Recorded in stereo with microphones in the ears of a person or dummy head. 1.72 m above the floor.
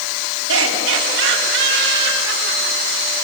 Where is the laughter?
80° right, 5 m; by 2.8 s 50° right (ahead or behind), 7 m.